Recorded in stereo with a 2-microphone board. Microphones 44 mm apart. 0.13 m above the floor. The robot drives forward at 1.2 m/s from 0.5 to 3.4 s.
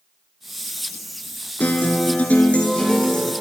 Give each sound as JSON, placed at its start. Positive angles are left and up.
{"t": 1.6, "sound": "a guitar", "side_deg": 40, "distance_m": 1.1}